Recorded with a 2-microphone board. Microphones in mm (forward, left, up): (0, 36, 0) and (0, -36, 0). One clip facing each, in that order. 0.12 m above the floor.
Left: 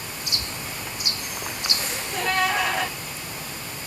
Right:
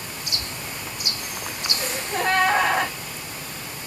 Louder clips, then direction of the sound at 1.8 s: Right 5 dB; 40° right (ahead or behind).